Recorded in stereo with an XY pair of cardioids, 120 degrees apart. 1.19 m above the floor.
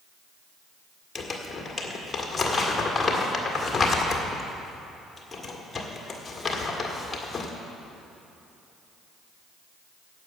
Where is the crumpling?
20° left, 1.8 m.